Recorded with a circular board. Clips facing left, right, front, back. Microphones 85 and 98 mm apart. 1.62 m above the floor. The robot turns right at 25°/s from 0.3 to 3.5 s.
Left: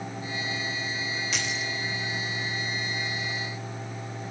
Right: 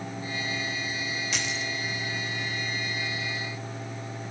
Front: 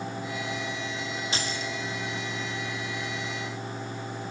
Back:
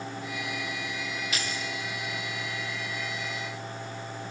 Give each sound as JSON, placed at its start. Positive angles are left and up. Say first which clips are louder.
{"t": 1.3, "sound": "keys jangling", "louder": "even, front 2 dB", "azimuth_deg": 0, "distance_m": 0.7}